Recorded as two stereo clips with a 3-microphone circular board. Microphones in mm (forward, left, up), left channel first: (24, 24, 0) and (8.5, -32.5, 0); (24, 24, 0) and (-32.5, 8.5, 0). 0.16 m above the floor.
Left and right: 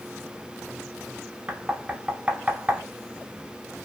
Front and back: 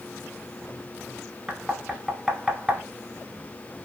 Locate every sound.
1.5 s knocking: 105° right, 0.8 m